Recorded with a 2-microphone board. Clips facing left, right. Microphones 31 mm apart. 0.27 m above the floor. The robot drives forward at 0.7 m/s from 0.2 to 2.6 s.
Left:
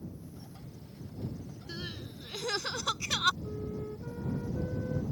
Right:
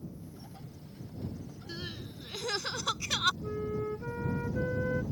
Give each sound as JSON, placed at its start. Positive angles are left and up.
{"t": 1.7, "sound": "crying", "side_deg": 5}
{"t": 3.4, "sound": "a flute", "side_deg": -90}